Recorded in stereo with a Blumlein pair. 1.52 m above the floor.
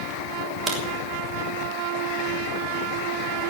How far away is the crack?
About 3 m.